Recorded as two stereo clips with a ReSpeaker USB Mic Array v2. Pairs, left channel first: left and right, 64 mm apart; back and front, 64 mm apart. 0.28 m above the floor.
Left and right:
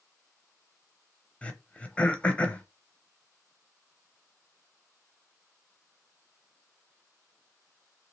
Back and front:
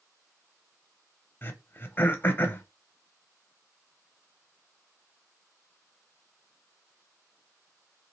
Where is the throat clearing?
150° left, 0.6 m.